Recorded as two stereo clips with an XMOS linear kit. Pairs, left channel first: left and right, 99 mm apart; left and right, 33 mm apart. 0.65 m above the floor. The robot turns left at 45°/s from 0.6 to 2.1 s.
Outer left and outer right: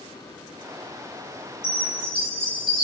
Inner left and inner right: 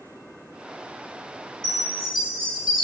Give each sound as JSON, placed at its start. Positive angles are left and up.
{"t": 1.6, "sound": "a chime", "side_deg": 25, "distance_m": 2.0}